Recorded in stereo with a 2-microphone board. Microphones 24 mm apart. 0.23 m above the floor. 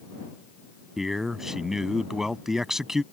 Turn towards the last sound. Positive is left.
turn(degrees=-15)  # may be behind; listen again after turning